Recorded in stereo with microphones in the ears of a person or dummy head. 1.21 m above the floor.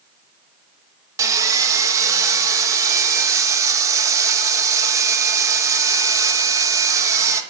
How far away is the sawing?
About 1.3 m.